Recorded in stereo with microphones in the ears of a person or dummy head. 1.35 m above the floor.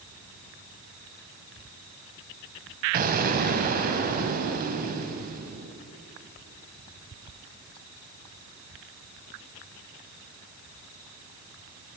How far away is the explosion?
About 2.5 m.